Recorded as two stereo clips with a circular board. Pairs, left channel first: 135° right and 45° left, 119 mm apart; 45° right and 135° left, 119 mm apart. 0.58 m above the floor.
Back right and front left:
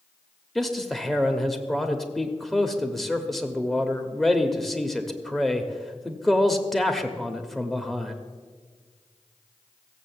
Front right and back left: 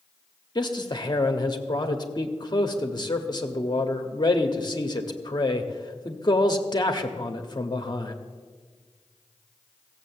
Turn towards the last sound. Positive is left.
turn(degrees=-50)